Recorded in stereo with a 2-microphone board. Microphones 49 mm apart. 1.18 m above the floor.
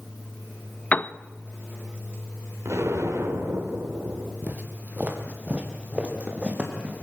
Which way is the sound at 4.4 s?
40° right (ahead or behind).